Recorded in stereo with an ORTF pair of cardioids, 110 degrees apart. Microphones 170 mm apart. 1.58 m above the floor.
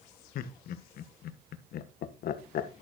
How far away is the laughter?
About 1.6 m.